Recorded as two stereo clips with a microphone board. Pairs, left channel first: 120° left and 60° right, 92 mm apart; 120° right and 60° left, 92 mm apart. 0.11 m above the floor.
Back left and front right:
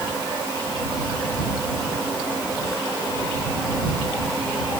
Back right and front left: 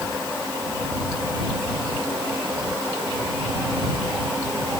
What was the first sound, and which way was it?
Only background noise.